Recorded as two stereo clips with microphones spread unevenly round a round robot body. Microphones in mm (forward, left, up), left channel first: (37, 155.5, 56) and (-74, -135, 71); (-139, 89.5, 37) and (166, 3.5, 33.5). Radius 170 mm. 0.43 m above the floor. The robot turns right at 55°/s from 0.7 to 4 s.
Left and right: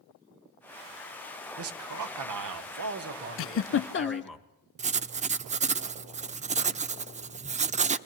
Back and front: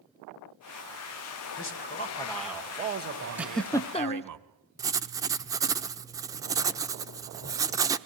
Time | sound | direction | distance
1.6 | a man speaking | 155° right | 1.5 m
3.4 | a giggle | 65° left | 0.6 m
4.8 | writing | 75° right | 0.7 m